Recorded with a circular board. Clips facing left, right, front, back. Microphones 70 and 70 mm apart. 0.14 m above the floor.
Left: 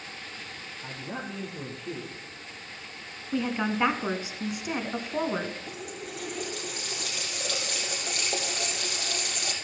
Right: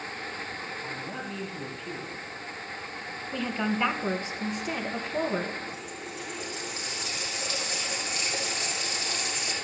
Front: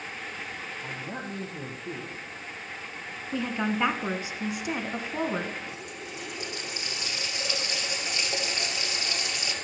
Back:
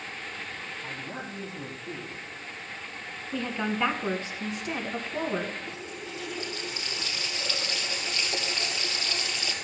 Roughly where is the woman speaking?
Ahead left.